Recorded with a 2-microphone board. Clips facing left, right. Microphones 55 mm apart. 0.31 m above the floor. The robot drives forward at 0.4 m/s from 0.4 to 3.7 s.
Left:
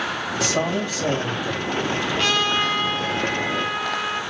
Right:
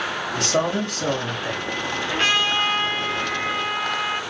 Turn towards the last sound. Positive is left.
turn(degrees=-15)  # may be behind; listen again after turning